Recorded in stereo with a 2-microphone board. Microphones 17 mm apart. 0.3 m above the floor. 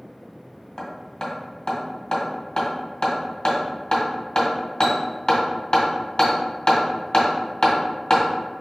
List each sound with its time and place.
0.8 s hammering: 50° left (ahead or behind), 1.8 m